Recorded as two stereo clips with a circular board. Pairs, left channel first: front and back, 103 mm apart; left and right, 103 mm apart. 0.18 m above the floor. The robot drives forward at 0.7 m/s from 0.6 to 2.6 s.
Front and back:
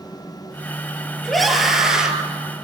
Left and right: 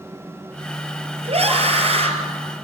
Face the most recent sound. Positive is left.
turn(degrees=-105)